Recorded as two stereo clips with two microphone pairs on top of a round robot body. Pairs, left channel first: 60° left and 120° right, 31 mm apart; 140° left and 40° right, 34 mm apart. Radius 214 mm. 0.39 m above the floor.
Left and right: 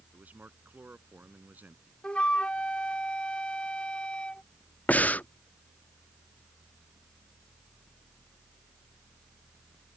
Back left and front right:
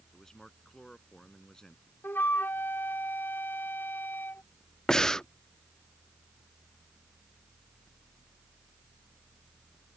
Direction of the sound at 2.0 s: 120° left.